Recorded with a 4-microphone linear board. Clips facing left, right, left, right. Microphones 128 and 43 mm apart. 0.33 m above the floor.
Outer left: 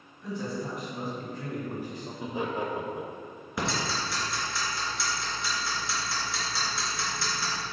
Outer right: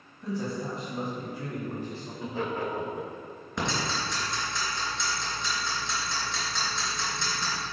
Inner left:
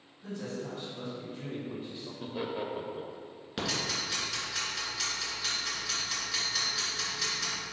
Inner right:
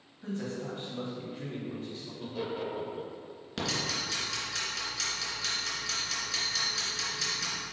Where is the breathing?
No breathing in this recording.